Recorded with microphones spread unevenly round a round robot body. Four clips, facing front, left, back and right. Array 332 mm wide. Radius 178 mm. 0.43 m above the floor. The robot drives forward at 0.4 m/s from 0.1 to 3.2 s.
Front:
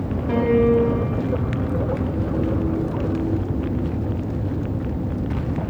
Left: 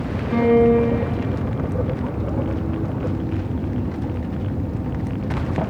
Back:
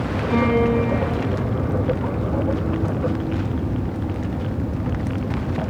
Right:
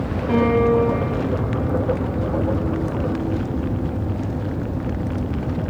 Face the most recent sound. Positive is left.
turn(degrees=-105)